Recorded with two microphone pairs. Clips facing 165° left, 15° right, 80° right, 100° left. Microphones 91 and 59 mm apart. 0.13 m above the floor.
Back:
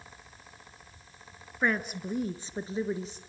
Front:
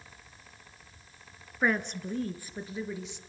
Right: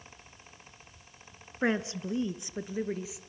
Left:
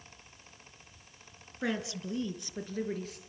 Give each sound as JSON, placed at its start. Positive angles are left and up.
{"t": 1.6, "sound": "a woman speaking", "azimuth_deg": -105, "distance_m": 1.7}